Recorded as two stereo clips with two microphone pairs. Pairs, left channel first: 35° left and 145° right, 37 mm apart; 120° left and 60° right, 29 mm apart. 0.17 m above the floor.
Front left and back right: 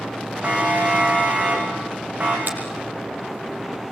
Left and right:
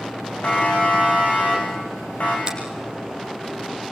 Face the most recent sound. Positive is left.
turn(degrees=-120)